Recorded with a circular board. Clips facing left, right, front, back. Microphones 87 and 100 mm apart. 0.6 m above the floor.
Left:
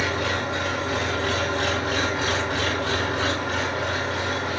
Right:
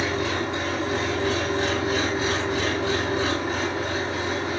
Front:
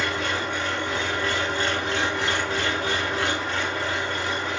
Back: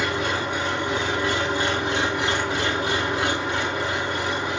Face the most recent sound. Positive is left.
turn(degrees=105)